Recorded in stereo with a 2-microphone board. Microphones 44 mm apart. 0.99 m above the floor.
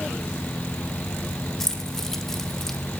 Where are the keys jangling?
10° left (ahead or behind), 2.5 m.